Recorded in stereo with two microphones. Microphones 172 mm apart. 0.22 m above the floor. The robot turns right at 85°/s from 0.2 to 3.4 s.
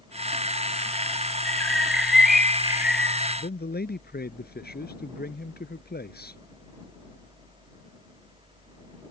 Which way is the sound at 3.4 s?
60° left (ahead or behind).